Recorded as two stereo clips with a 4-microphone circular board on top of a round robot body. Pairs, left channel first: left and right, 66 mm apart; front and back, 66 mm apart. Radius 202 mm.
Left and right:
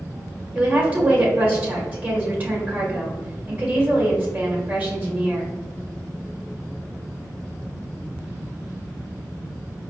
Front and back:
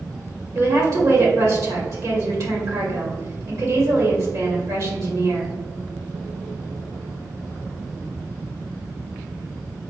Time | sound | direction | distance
0.6 | a woman speaking | 150° right | 1.9 m